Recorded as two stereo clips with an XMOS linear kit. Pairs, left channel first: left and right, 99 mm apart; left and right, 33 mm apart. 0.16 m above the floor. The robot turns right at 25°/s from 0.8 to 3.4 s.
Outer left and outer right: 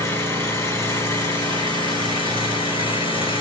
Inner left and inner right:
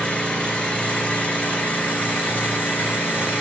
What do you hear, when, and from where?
0.0 s an engine running: 35° left, 2.5 m; by 3.4 s 100° left, 2.5 m